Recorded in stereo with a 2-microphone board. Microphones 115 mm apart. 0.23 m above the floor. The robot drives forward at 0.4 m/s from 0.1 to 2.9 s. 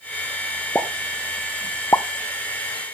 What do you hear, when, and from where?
0.8 s a pop: 10° left (ahead or behind), 1.0 m; by 2.0 s 25° left (ahead or behind), 0.5 m